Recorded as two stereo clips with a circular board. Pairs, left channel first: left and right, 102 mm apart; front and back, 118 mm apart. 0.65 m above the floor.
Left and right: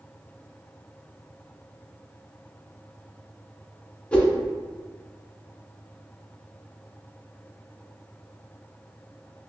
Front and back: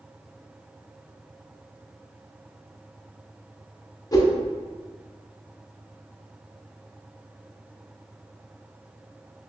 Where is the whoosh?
20° left, 0.7 m.